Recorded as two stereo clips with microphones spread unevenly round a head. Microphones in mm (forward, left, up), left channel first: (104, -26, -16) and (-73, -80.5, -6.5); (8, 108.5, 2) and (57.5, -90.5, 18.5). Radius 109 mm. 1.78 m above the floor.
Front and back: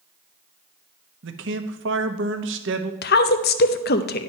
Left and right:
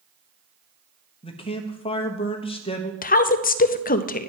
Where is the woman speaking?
55° left, 0.6 m.